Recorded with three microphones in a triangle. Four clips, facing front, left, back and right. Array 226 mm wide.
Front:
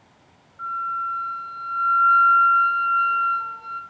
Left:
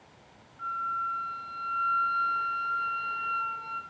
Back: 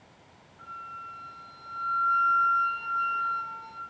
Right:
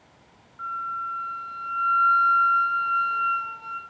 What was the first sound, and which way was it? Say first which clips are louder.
A flute: right 1 dB, front 15 dB; 20° left.